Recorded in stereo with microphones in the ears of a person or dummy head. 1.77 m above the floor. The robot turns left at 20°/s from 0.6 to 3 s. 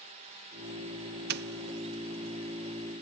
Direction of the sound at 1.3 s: 55° right (ahead or behind).